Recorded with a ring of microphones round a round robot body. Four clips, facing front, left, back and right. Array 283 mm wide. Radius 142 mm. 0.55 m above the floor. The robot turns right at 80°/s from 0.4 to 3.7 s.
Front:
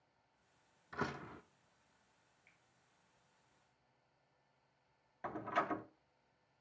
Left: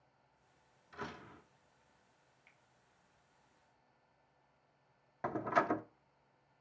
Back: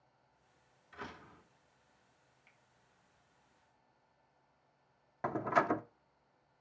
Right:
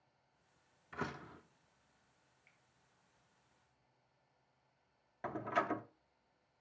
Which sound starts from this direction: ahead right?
A door slam, at 0.9 s.